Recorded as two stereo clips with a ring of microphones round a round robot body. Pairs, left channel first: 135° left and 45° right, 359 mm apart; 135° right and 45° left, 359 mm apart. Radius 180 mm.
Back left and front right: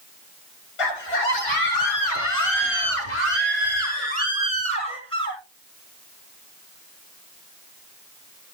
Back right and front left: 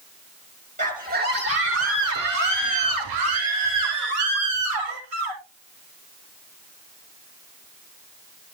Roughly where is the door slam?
No door slam in this recording.